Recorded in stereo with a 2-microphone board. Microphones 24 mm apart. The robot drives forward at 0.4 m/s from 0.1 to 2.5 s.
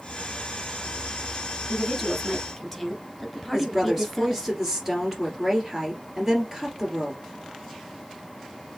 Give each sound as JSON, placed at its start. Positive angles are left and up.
{"t": 1.7, "sound": "a woman speaking", "side_deg": 5, "distance_m": 1.6}
{"t": 3.5, "sound": "a woman speaking", "side_deg": -10, "distance_m": 2.0}